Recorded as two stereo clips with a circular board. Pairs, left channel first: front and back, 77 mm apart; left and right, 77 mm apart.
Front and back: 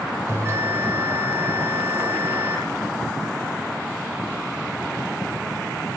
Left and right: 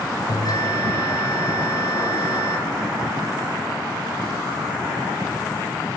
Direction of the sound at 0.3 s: 125° left.